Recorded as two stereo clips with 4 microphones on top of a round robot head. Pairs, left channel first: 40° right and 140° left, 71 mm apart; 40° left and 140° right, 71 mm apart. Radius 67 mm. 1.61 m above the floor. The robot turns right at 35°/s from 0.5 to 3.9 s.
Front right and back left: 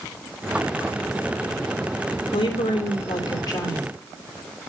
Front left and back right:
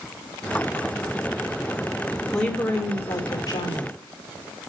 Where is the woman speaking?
45° right, 3 m; by 3.9 s 10° left, 3 m.